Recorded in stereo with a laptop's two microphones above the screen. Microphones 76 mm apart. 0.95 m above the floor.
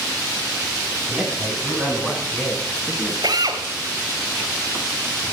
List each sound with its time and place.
1.1 s a man speaking: centre (ahead or behind), 8.5 m
3.2 s a drill: 60° right (ahead or behind), 2.5 m